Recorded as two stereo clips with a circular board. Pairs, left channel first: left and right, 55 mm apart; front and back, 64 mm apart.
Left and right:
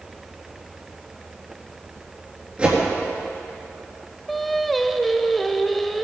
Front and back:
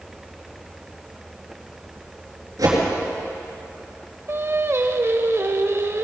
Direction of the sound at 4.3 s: 175° left.